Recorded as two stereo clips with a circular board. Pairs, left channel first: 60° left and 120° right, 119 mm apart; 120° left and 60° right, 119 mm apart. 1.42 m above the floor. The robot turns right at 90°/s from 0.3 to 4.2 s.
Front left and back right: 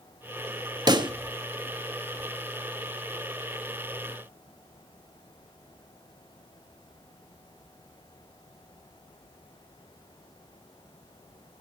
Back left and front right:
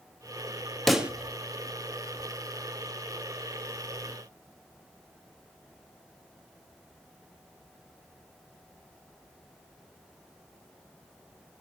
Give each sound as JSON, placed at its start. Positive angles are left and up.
{"t": 0.9, "sound": "a pop", "azimuth_deg": -150, "distance_m": 1.0}